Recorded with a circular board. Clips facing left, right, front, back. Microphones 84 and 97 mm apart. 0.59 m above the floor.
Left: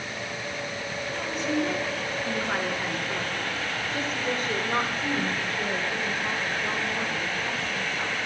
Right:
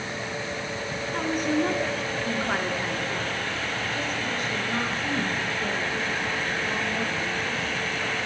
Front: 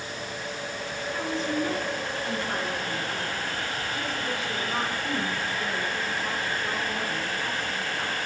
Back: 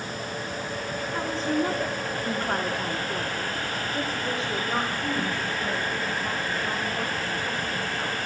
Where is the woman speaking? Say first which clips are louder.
Right 3 dB, back 2 dB; 125° right, 1.7 m; by 8.2 s 100° left, 4 m.